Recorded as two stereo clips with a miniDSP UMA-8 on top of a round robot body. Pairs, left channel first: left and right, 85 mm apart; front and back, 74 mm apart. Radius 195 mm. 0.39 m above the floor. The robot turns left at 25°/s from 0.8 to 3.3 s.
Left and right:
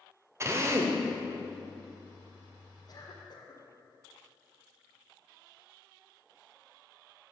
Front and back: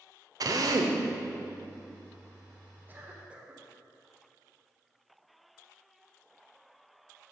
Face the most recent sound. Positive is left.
turn(degrees=110)